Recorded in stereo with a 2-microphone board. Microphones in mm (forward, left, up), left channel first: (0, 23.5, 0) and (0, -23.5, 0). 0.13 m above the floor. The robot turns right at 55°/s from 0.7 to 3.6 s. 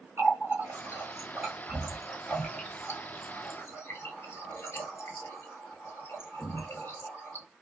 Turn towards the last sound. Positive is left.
turn(degrees=60)  # may be behind; listen again after turning